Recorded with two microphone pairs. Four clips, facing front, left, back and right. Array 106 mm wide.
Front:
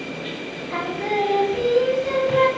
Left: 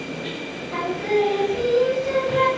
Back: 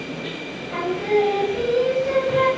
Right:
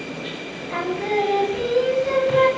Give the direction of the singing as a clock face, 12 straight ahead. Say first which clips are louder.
Left 1 dB, back 4 dB; 2 o'clock.